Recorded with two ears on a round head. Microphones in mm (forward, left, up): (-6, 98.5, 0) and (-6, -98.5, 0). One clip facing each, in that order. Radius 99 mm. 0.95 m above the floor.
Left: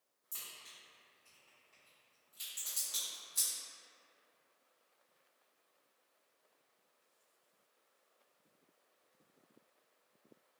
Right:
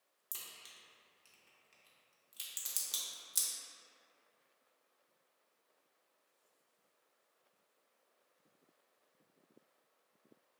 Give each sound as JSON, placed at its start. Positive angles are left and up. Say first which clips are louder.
{"t": 0.3, "sound": "a crack", "louder": "even", "side_deg": -45, "distance_m": 0.8}